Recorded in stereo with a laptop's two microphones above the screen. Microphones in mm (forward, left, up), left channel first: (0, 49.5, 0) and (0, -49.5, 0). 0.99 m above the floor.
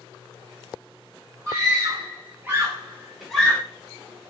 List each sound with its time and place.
1.5 s a scream: 35° right (ahead or behind), 1.5 m; by 3.6 s 15° left (ahead or behind), 0.8 m